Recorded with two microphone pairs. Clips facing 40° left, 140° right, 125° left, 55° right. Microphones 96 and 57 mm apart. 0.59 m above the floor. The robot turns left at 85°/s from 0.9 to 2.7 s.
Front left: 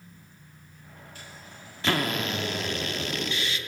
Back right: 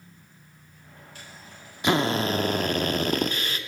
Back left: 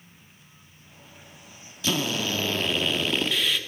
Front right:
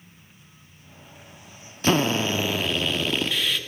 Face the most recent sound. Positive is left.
turn(degrees=-145)